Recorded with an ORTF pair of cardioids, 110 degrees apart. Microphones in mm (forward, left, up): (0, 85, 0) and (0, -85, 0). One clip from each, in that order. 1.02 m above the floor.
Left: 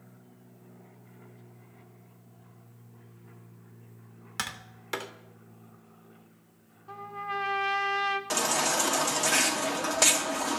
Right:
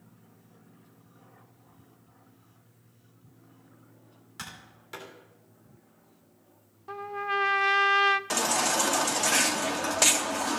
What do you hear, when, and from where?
4.4 s tapping: 55° left, 1.8 m
6.9 s a trumpet: 30° right, 0.9 m
8.3 s a baby crying: 10° right, 1.3 m